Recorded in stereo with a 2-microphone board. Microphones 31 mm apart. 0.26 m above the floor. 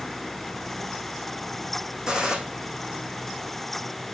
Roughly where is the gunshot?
Centre.